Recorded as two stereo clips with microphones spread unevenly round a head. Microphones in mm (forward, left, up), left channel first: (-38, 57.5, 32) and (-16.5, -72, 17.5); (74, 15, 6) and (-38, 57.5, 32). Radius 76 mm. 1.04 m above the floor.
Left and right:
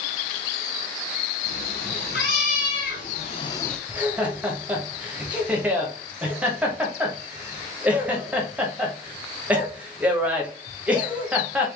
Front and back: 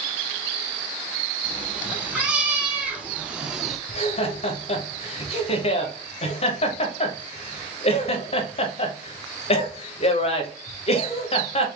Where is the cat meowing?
85° left, 2.5 m; by 3.8 s 165° left, 0.5 m.